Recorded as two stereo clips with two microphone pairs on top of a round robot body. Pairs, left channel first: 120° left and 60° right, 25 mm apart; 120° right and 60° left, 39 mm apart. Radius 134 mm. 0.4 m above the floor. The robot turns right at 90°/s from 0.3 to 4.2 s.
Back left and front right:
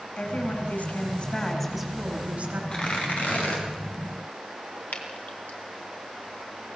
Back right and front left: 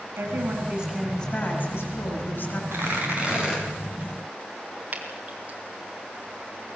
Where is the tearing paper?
70° left, 5 m; by 3.6 s 150° left, 5 m.